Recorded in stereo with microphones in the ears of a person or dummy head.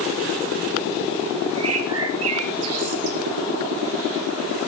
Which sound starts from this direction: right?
A bird, at 1.6 s.